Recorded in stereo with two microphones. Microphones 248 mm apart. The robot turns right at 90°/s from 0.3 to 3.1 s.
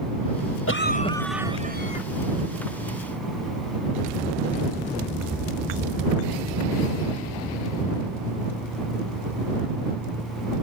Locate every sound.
0.7 s a cough: 120° left; by 2.0 s 115° right